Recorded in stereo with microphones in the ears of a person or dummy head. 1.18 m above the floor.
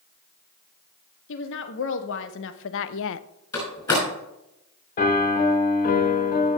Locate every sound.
1.3 s a woman speaking: 70° left (ahead or behind), 1.8 m; by 3.3 s 80° left, 0.6 m
3.5 s a door slam: 20° left (ahead or behind), 5.5 m
5.0 s a piano: 45° left (ahead or behind), 1.6 m